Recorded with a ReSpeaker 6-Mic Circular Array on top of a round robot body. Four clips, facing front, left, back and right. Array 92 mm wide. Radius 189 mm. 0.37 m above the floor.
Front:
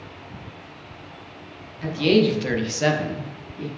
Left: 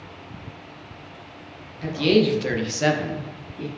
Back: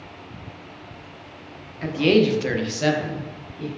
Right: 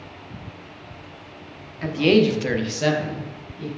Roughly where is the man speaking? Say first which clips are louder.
Right 2 dB, back 1 dB; behind right.